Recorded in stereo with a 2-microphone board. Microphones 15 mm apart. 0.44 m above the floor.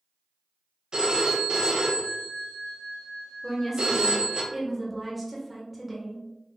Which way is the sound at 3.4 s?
5° right (ahead or behind).